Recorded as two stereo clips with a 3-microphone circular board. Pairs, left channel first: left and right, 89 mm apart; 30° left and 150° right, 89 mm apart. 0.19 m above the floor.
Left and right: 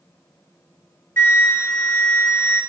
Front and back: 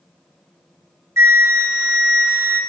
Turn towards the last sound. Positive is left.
turn(degrees=155)